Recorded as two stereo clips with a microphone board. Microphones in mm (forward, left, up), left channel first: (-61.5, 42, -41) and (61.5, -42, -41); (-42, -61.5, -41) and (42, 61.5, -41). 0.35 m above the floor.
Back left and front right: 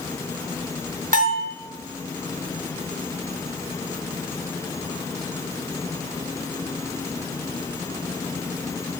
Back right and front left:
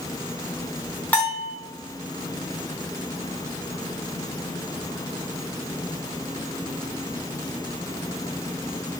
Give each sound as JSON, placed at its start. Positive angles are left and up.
{"t": 1.1, "sound": "a bell", "azimuth_deg": -45, "distance_m": 2.5}